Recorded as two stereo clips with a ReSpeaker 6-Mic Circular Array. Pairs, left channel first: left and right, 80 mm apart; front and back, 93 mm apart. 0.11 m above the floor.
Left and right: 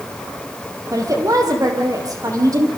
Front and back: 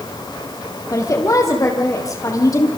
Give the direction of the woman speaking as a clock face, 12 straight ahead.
2 o'clock.